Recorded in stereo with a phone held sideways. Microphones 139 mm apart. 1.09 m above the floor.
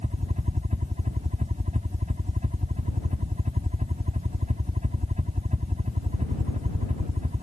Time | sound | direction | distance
0.0 | a helicopter | 55° right (ahead or behind) | ?